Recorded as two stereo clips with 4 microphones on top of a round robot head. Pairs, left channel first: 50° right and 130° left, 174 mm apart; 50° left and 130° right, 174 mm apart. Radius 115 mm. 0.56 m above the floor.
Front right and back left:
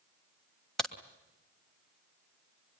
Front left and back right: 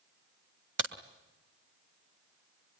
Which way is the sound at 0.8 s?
140° right.